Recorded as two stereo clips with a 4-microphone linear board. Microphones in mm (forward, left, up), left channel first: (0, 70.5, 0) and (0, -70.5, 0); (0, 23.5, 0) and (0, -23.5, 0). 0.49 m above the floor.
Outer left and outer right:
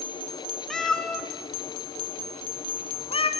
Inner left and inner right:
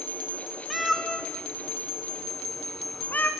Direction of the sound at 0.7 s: Centre (ahead or behind).